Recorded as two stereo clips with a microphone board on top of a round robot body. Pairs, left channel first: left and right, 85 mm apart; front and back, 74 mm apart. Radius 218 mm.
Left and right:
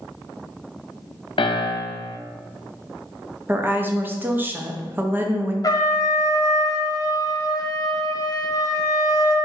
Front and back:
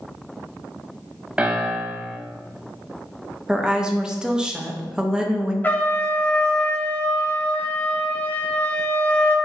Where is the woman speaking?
115° right, 0.9 m.